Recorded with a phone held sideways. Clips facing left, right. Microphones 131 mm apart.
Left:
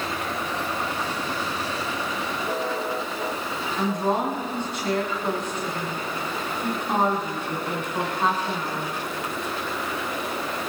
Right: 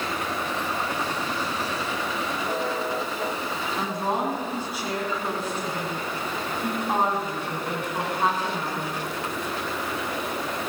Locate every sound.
3.8 s a woman speaking: 10° right (ahead or behind), 7 m